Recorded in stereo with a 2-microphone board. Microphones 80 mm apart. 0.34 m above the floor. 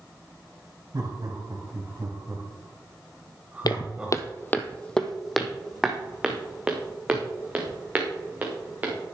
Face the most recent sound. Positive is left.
turn(degrees=-20)  # may be behind; listen again after turning